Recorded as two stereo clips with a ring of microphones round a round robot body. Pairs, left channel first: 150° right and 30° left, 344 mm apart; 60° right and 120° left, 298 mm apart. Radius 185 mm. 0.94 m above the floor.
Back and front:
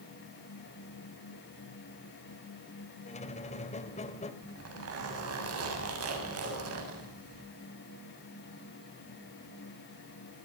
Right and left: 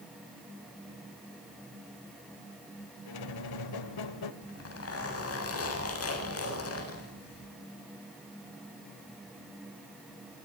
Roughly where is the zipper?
Ahead.